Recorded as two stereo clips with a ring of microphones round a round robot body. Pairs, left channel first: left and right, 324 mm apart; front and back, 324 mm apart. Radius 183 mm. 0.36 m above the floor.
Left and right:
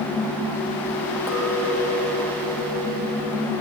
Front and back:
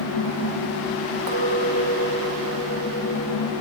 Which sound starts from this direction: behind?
A clink, at 1.3 s.